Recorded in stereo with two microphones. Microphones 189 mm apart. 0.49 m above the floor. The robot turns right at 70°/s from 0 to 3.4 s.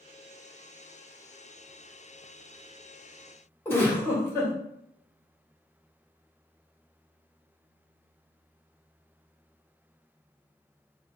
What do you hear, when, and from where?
3.6 s a giggle: 10° left (ahead or behind), 1.5 m